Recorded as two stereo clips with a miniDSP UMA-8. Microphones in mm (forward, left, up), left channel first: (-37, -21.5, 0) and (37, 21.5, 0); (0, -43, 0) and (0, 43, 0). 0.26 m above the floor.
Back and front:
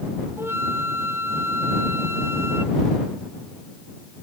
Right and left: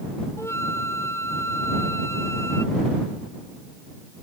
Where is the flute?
30° right.